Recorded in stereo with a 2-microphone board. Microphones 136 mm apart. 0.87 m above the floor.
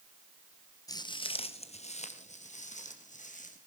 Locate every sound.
0.9 s footsteps: 25° left (ahead or behind), 1.0 m; by 3.6 s 70° left (ahead or behind), 3 m